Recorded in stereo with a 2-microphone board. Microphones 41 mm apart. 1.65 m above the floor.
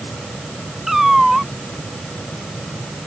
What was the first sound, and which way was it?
A cat meowing, 10° right (ahead or behind).